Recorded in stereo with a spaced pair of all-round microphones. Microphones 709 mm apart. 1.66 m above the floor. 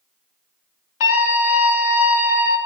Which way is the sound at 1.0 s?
80° left.